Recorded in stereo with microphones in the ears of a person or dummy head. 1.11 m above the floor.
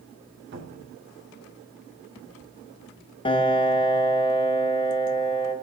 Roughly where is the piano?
Left.